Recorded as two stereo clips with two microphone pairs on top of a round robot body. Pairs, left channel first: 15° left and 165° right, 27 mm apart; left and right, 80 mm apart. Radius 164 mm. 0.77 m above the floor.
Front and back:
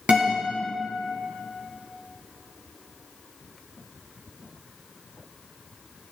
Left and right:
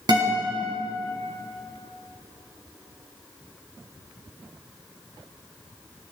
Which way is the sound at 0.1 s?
125° right.